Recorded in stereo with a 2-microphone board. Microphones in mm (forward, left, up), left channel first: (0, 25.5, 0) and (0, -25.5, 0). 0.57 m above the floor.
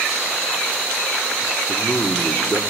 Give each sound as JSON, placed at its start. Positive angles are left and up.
{"t": 1.7, "sound": "a man speaking", "side_deg": 40, "distance_m": 1.0}